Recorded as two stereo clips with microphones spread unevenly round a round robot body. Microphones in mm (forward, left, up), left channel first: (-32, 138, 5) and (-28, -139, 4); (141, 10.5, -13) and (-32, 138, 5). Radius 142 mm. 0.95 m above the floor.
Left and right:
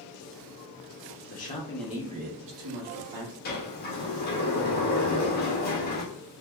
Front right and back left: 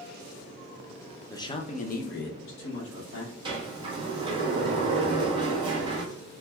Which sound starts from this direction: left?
A sliding door, at 3.5 s.